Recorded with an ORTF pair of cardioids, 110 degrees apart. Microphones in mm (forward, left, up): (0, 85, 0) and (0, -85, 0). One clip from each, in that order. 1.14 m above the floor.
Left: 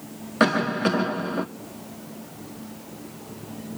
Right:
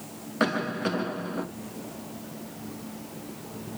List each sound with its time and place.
0.4 s a cough: 30° left, 1.2 m